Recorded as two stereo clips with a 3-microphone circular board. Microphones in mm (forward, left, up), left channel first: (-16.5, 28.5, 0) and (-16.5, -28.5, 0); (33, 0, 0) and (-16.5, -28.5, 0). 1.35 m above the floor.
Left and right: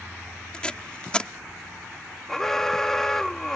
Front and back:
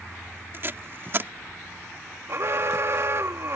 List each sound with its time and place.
0.5 s tape being pulled: 165° left
2.3 s an alarm: 175° left